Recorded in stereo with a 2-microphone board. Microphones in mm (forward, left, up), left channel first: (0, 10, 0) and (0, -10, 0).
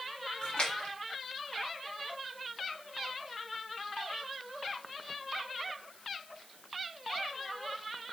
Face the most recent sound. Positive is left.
turn(degrees=75)  # may be behind; listen again after turning